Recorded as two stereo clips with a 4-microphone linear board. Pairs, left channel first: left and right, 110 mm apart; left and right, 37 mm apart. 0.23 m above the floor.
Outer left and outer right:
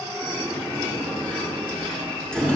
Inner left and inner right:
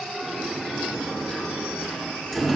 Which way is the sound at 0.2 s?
5° left (ahead or behind).